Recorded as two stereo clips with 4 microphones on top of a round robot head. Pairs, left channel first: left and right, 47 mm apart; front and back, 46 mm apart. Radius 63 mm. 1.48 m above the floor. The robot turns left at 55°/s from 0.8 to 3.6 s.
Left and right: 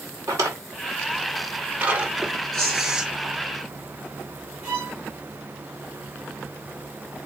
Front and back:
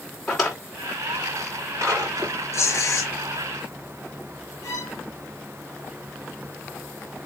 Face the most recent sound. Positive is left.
turn(degrees=-15)